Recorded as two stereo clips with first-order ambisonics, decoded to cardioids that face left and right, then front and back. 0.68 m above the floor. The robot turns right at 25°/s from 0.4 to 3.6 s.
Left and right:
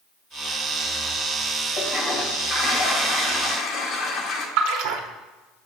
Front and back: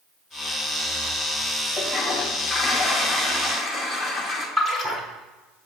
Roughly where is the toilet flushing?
Ahead left.